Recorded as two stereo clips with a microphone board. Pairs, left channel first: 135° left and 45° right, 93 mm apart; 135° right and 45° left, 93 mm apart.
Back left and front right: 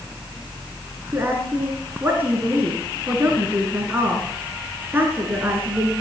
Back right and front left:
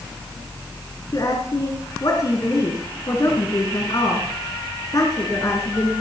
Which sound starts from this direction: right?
A woman speaking, at 1.1 s.